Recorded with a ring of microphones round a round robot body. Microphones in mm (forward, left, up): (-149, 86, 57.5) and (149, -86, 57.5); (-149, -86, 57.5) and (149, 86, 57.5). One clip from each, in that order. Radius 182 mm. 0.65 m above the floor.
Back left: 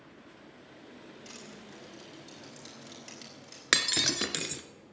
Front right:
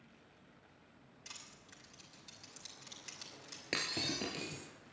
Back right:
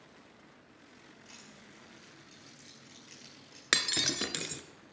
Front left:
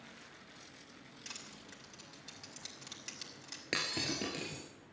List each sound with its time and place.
1.2 s crushing: 55° left, 6.5 m
3.7 s breaking glass: 175° left, 1.2 m